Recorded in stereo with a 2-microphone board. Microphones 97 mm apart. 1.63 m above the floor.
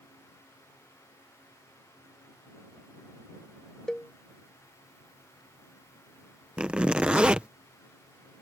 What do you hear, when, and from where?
3.9 s a cowbell: 5° left (ahead or behind)
6.6 s a zipper: 10° right (ahead or behind)